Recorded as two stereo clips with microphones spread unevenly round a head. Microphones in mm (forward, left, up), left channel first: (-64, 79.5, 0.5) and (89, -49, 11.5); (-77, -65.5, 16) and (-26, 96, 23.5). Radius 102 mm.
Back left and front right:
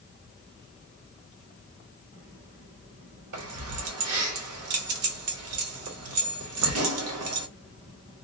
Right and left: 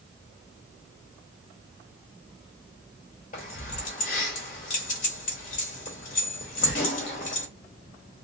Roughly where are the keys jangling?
Ahead right.